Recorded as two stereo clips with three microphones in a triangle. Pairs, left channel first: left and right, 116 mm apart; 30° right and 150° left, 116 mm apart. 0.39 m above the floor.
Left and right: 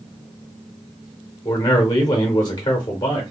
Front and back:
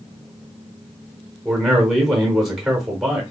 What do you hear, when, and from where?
1.4 s a man speaking: 65° left, 1.0 m